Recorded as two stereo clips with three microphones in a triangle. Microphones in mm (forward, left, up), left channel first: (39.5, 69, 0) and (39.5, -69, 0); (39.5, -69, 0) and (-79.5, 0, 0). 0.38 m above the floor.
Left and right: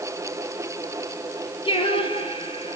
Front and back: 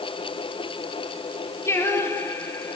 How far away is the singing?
About 4 m.